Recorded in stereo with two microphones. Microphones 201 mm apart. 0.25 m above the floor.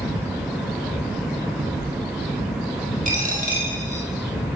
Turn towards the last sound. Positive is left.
turn(degrees=-40)  # may be behind; listen again after turning